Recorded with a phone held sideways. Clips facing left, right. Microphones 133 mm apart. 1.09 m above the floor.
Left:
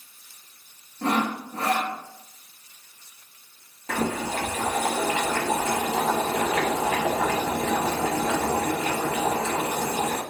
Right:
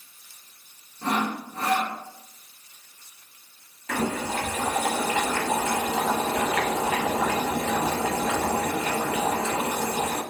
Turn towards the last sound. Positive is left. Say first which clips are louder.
# even
turn(degrees=30)  # may be behind; listen again after turning